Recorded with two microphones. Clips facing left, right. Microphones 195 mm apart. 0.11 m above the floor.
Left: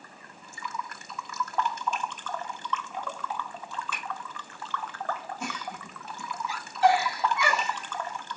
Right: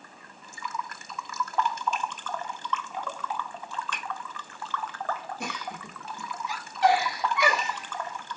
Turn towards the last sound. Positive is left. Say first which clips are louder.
# even
turn(degrees=-65)  # may be behind; listen again after turning